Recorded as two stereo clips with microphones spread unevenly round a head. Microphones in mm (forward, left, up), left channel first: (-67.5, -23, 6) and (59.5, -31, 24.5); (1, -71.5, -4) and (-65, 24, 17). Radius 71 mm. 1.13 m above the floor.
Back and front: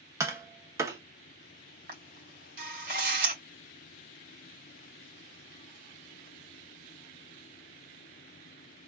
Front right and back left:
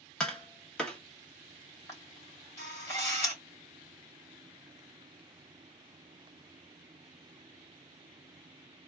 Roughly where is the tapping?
Ahead left.